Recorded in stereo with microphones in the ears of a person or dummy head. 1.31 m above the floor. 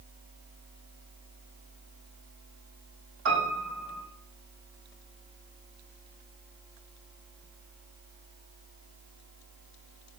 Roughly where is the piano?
Right.